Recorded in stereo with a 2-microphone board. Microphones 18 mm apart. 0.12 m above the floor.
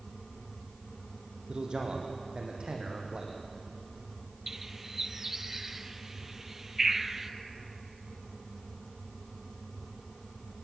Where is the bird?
25° right (ahead or behind), 1.1 m.